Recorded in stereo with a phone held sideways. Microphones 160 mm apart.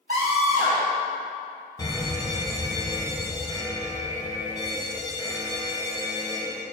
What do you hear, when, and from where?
0.1 s a scream: 70° right (ahead or behind), 4.5 m
1.8 s a fire alarm: 25° left (ahead or behind), 1.5 m